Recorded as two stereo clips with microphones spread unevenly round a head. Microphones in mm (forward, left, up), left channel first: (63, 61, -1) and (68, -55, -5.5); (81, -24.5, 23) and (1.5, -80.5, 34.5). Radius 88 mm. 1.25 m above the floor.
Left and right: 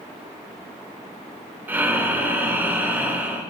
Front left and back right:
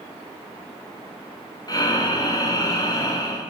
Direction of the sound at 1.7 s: 15° right.